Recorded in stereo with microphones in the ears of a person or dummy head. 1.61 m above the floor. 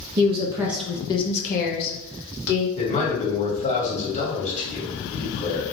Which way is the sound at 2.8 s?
40° left (ahead or behind).